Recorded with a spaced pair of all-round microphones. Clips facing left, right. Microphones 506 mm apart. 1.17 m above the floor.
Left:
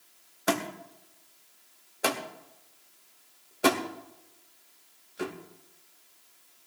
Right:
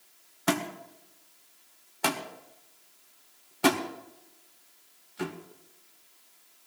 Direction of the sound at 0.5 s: 20° right (ahead or behind).